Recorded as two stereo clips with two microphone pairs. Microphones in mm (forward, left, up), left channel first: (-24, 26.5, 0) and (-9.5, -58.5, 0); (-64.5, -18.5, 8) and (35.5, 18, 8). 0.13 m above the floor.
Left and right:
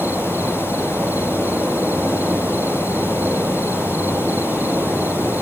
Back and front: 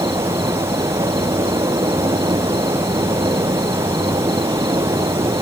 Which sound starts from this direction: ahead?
An insect, at 0.0 s.